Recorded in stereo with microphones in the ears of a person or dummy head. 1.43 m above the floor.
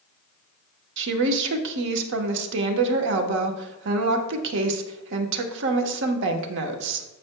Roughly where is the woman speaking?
Right.